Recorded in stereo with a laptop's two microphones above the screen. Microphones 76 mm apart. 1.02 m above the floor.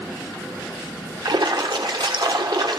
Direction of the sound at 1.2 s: 70° right (ahead or behind).